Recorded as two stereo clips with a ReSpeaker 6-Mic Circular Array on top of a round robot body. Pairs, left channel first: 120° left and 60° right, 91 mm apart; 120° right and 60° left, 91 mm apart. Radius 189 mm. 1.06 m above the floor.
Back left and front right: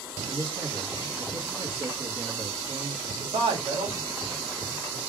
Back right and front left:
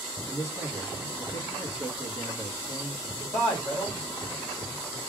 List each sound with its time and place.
0.3 s a man speaking: 60° right, 2.0 m
3.2 s a man speaking: 65° right, 2.5 m